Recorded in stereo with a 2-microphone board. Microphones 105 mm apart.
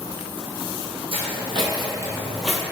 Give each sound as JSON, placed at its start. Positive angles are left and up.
{"t": 1.1, "sound": "footsteps", "side_deg": -55, "distance_m": 1.7}